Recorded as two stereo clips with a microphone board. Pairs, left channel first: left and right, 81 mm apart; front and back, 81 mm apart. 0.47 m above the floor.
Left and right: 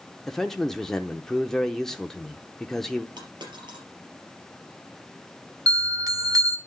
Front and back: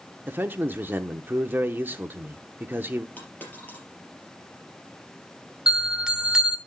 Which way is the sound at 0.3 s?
165° left.